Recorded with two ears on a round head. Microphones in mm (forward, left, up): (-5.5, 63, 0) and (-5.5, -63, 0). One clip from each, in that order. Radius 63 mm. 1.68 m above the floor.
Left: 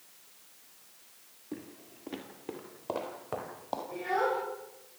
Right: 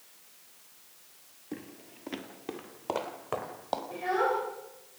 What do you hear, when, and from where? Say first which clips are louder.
1.5 s footsteps: right 1 dB; 25° right (ahead or behind), 1.9 m; by 3.8 s 35° right (ahead or behind), 3 m
3.9 s a child speaking: right 1 dB; 25° right (ahead or behind), 5.5 m